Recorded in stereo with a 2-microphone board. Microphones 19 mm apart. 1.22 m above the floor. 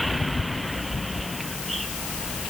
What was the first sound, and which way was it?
Only background noise.